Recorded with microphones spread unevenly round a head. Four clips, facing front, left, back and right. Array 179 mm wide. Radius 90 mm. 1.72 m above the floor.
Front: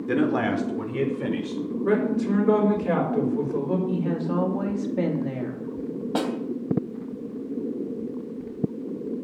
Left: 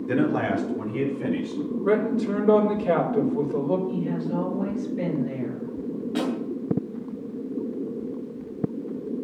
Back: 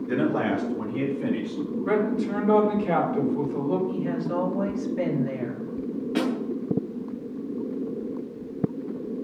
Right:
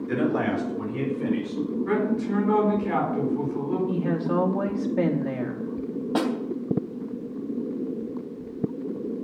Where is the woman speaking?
60° right, 3.5 m.